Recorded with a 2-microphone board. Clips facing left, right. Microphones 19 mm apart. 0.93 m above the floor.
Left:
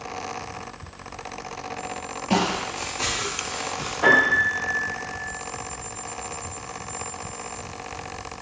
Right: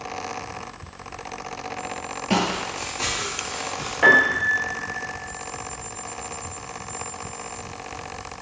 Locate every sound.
2.3 s footsteps: 30° right (ahead or behind), 1.1 m; by 3.9 s 20° left (ahead or behind), 1.2 m
4.0 s a piano: 60° right (ahead or behind), 0.7 m